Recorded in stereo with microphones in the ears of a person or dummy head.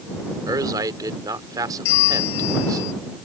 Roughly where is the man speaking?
Centre.